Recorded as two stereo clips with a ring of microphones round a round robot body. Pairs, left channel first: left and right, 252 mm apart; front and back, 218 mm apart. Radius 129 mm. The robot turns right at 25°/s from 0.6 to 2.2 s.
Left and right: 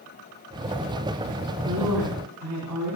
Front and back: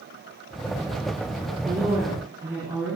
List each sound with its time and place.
1.6 s a woman speaking: 115° right, 4 m; by 3.0 s 100° right, 4 m